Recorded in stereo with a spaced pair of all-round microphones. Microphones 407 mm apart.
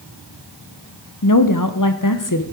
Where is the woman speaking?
45° left (ahead or behind), 0.9 m.